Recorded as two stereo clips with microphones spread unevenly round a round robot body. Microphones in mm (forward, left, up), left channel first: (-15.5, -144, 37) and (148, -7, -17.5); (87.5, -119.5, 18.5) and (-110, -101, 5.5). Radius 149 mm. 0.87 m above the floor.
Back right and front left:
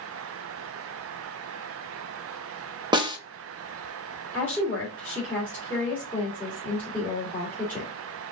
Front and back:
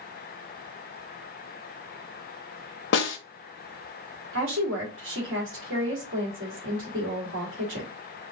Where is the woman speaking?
135° left, 2 m.